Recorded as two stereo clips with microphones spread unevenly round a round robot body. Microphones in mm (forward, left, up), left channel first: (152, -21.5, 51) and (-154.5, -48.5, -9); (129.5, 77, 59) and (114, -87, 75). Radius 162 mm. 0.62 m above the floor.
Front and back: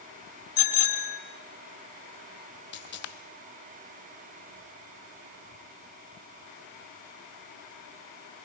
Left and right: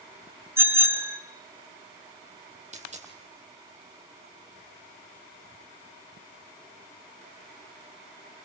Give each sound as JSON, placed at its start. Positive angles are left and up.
{"t": 0.6, "sound": "a bicycle bell", "azimuth_deg": -20, "distance_m": 6.5}
{"t": 2.7, "sound": "a dropped coin", "azimuth_deg": -50, "distance_m": 4.5}